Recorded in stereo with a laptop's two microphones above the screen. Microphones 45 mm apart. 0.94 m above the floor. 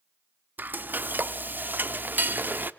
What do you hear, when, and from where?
0.6 s frying: 50° right (ahead or behind), 0.6 m